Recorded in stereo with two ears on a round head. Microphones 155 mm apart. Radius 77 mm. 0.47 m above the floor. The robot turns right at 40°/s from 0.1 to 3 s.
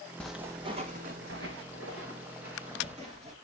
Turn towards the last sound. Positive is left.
turn(degrees=-35)  # may be behind; listen again after turning